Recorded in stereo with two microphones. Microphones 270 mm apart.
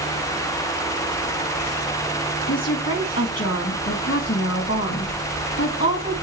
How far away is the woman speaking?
About 2 m.